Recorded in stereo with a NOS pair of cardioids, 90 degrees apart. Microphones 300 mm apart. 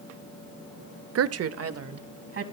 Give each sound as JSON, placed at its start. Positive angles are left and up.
{"t": 1.1, "sound": "a woman speaking", "azimuth_deg": -50, "distance_m": 0.5}